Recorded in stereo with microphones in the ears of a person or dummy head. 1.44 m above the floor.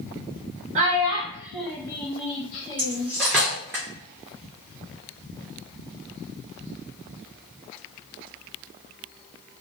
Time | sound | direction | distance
0.8 | a child speaking | 45° right (ahead or behind) | 0.9 m
2.8 | cutlery clinking | 15° right (ahead or behind) | 0.5 m